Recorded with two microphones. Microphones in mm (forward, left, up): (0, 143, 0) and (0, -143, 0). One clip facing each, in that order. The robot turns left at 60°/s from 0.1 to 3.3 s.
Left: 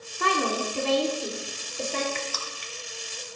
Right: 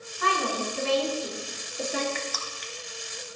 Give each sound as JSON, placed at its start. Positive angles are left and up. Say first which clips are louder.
{"t": 0.2, "sound": "a woman speaking", "louder": "left 3 dB", "azimuth_deg": 100, "distance_m": 3.0}
{"t": 2.1, "sound": "crushing", "louder": "even", "side_deg": 55, "distance_m": 1.1}